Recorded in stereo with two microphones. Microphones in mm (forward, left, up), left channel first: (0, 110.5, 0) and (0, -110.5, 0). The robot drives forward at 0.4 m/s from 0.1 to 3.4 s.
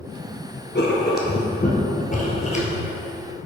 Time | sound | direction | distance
0.8 | writing | 55° left (ahead or behind) | 1.0 m